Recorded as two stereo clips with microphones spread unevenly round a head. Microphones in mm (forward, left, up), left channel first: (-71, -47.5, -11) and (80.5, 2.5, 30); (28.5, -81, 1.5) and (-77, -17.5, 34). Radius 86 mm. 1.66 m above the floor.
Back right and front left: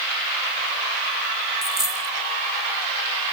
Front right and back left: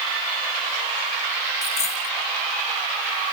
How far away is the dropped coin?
About 2.5 m.